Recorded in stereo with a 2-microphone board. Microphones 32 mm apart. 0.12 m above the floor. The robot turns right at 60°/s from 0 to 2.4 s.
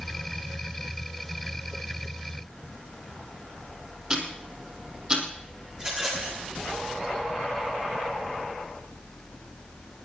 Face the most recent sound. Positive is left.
turn(degrees=-20)  # may be behind; listen again after turning